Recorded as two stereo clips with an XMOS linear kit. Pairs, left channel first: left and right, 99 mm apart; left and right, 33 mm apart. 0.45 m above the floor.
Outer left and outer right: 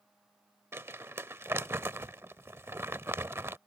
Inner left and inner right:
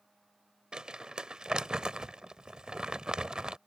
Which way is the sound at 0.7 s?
25° right (ahead or behind).